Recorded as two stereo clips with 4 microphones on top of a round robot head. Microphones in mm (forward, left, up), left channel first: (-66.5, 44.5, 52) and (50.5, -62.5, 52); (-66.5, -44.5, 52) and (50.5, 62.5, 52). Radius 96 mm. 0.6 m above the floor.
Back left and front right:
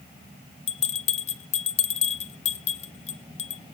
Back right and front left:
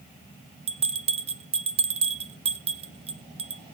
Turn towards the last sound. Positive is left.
turn(degrees=95)